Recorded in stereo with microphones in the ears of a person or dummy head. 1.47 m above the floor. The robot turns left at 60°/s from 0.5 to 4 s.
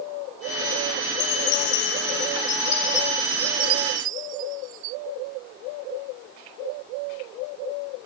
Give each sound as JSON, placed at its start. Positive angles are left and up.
{"t": 1.1, "sound": "a chime", "azimuth_deg": 125}